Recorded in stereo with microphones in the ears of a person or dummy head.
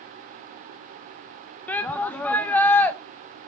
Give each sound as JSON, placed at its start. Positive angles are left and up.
{"t": 1.7, "sound": "a shout", "side_deg": 15, "distance_m": 0.6}